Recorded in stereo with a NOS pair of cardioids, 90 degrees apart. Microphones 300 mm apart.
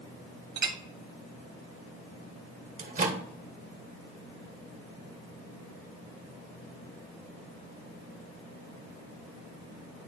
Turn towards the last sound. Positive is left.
turn(degrees=-25)